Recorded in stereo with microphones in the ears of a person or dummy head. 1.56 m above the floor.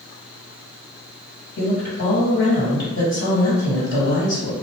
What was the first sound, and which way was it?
A woman speaking, 65° left (ahead or behind).